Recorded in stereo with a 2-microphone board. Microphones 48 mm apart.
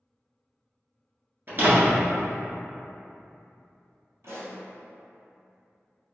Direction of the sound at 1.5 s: 45° right (ahead or behind).